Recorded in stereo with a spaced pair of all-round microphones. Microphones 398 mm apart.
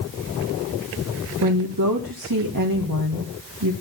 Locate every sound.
1.4 s a woman speaking: 55° right (ahead or behind), 1.5 m